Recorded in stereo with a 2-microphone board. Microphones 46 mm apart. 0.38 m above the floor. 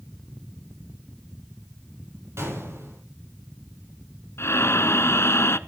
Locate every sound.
2.4 s a gunshot: 75° right (ahead or behind), 9.5 m
4.4 s breathing: 70° left (ahead or behind), 0.6 m